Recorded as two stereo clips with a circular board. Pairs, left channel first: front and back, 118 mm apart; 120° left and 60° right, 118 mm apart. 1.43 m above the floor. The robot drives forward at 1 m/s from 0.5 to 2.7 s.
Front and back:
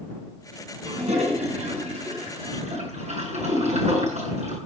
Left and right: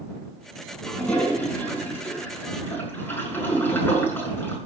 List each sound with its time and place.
0.8 s a toilet flushing: 160° right, 5.5 m; by 4.6 s 165° right, 7 m